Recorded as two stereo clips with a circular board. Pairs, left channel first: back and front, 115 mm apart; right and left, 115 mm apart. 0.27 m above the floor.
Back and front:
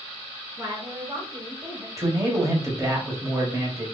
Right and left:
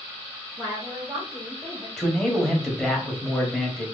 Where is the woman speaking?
15° left, 1.6 m; by 1.9 s 35° right, 1.5 m.